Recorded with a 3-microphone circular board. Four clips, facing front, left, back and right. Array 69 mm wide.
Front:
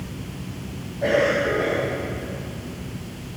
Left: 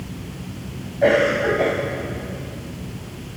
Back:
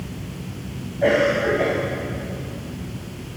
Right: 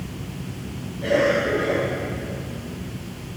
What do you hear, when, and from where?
1.0 s a cough: 110° left, 6 m